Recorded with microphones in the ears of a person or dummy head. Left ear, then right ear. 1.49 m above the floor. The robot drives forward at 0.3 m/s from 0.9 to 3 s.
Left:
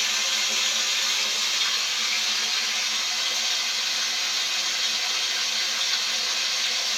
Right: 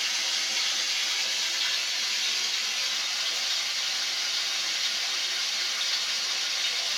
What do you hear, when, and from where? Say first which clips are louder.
0.0 s running water: left 4 dB; 25° left (ahead or behind), 0.7 m; by 7.0 s 15° left (ahead or behind), 1.3 m